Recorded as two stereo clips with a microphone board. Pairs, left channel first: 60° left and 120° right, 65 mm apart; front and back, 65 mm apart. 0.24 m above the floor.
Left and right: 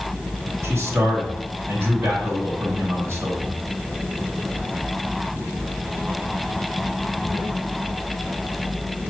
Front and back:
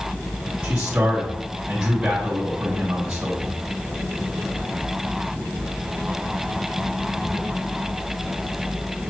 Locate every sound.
0.6 s a man speaking: 125° right, 2.0 m